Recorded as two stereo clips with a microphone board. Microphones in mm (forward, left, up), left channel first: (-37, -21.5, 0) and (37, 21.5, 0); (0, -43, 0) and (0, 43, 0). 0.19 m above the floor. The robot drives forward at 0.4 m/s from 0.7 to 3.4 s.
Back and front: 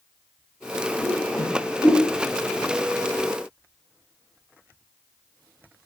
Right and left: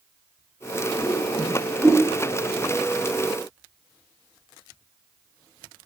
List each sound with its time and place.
1.0 s a whoosh: 155° left, 1.4 m; by 2.0 s 160° left, 1.7 m